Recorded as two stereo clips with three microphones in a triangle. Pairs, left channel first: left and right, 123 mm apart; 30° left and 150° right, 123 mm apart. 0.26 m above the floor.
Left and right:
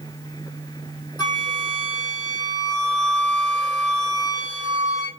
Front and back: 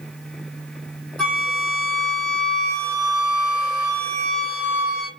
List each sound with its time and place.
1.2 s a flute: 110° left, 1.6 m